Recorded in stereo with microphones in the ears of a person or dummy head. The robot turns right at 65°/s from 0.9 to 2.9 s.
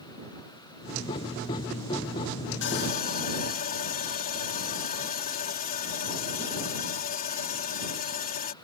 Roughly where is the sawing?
Left.